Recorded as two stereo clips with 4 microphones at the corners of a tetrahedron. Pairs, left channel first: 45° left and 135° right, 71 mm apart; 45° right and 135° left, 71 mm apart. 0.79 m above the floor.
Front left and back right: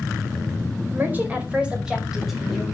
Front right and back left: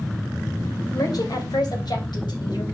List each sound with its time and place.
0.9 s a woman speaking: 75° right, 3.5 m; by 2.6 s 45° right, 5 m